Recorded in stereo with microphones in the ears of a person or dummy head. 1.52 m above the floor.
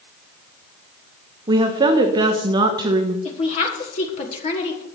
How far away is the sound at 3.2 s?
About 1.3 m.